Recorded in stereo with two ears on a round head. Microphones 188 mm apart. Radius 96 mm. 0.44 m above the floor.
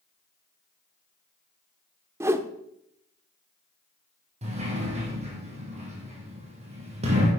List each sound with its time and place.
2.2 s a whoosh: 15° right (ahead or behind), 0.7 m
4.4 s a sliding door: 30° right (ahead or behind), 3.5 m